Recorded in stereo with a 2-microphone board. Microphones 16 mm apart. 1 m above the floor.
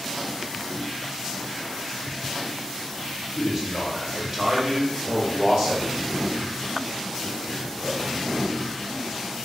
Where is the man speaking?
20° right (ahead or behind), 0.7 m; by 6.0 s 40° right (ahead or behind), 1.8 m.